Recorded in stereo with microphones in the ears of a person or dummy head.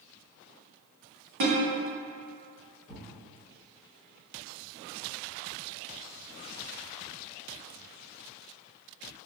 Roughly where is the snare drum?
Right.